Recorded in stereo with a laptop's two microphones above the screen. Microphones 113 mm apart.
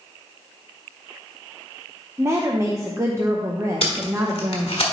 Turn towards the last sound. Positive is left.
turn(degrees=55)  # may be behind; listen again after turning